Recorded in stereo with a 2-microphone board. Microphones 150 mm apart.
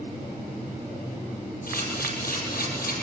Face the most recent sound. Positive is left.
turn(degrees=80)